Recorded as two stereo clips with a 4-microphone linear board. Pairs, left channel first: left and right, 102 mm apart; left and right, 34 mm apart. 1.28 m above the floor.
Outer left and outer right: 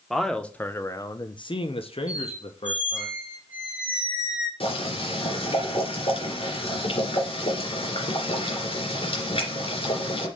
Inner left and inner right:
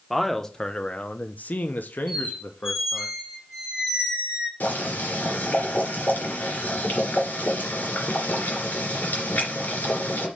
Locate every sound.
0.1 s a man speaking: centre (ahead or behind), 1.0 m; by 3.1 s 65° left (ahead or behind), 1.4 m
2.1 s a squeak: 15° right (ahead or behind), 3 m
4.6 s boiling: 60° left (ahead or behind), 3 m